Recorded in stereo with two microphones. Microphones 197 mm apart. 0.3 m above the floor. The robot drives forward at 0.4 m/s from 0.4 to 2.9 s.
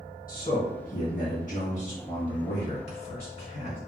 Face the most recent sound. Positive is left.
turn(degrees=35)  # may be behind; listen again after turning